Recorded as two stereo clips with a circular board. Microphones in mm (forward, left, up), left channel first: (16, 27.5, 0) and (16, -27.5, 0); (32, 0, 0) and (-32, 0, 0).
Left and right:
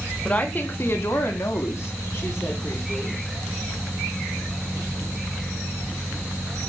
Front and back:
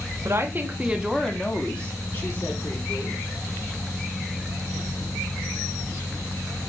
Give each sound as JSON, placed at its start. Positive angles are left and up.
{"t": 0.2, "sound": "a woman speaking", "azimuth_deg": 150, "distance_m": 1.4}